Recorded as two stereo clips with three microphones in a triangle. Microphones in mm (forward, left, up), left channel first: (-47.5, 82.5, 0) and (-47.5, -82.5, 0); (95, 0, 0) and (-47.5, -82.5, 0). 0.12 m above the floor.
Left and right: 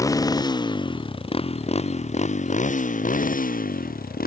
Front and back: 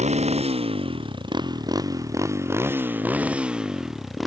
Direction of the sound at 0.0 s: 160° left.